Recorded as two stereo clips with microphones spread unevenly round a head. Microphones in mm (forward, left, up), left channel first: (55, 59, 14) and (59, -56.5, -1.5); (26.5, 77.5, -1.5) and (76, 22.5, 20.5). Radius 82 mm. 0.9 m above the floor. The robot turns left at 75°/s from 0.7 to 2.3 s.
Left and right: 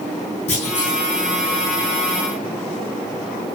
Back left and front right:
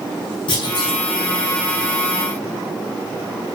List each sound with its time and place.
0.5 s a clunk: 145° left, 5.5 m; by 1.0 s 120° left, 5.5 m